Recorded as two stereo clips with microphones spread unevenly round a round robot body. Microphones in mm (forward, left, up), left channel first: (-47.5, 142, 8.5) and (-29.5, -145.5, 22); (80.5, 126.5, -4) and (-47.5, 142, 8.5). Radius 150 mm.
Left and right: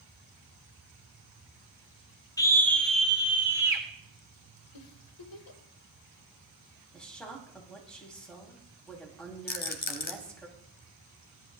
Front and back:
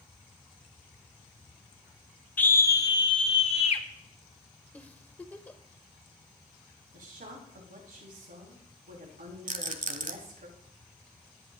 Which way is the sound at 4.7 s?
70° left.